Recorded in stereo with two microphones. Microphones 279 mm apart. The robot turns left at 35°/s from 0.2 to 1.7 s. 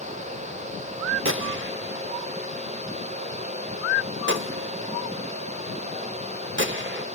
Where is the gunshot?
45° right (ahead or behind), 0.7 m; by 7.0 s 40° right (ahead or behind), 0.7 m.